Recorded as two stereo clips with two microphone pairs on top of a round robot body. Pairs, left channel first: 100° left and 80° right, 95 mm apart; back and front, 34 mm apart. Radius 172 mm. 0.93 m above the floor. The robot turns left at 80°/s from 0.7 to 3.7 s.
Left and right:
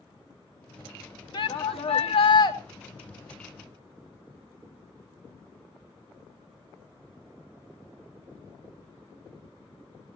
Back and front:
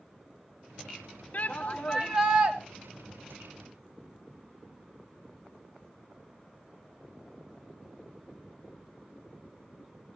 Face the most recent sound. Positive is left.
turn(degrees=-45)